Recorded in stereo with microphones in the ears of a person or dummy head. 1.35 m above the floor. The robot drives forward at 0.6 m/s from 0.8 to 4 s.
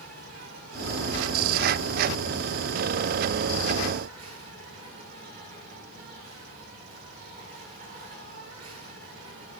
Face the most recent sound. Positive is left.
turn(degrees=-50)  # may be behind; listen again after turning